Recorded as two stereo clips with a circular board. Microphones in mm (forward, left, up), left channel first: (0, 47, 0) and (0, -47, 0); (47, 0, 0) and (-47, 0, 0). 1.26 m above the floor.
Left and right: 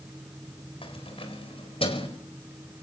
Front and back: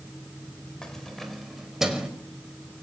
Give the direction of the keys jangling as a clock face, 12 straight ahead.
9 o'clock.